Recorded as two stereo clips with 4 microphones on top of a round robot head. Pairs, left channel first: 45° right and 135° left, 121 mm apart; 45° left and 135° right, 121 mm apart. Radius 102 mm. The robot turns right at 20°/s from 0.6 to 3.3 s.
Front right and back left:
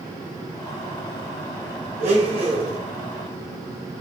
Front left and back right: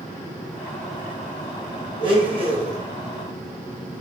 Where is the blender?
170° left, 1.1 m; by 2.8 s 175° right, 1.1 m.